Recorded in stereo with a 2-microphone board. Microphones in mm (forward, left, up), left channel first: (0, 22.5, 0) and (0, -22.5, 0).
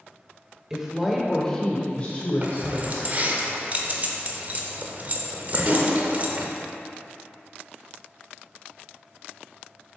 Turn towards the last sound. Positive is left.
turn(degrees=-35)  # may be behind; listen again after turning